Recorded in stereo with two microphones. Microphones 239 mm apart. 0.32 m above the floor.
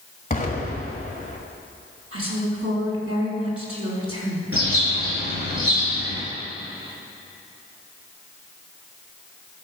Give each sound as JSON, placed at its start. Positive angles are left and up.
{"t": 0.3, "sound": "an explosion", "side_deg": 35, "distance_m": 1.7}
{"t": 2.1, "sound": "a woman speaking", "side_deg": -65, "distance_m": 3.0}
{"t": 4.5, "sound": "a bird", "side_deg": -65, "distance_m": 4.5}